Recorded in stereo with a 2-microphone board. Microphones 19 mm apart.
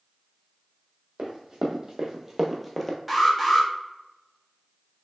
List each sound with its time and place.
1.2 s running footsteps: 35° right (ahead or behind), 1.4 m; by 3.0 s 20° left (ahead or behind), 0.8 m
3.1 s an alarm: 5° right (ahead or behind), 1.0 m